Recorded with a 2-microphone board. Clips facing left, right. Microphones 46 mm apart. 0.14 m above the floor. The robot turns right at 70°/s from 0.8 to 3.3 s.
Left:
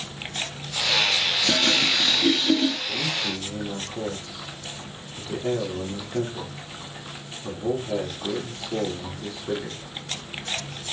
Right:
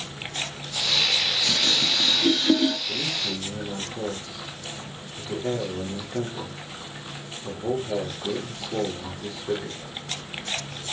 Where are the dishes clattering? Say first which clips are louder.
Left 5 dB; 40° left (ahead or behind), 1.2 m; by 2.8 s 35° right (ahead or behind), 1.2 m.